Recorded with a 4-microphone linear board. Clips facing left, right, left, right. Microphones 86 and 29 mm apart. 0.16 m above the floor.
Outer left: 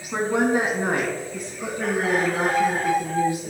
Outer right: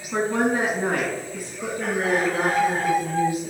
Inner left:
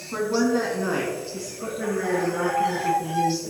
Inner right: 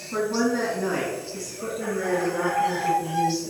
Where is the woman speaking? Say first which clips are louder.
Outer left 1 dB, inner left 1 dB; 10° left (ahead or behind), 1.4 m; by 3.5 s 30° left (ahead or behind), 3.5 m.